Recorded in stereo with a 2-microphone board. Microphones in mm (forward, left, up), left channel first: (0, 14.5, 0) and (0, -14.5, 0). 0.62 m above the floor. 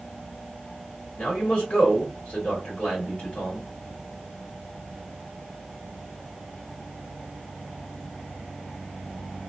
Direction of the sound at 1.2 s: 50° left (ahead or behind).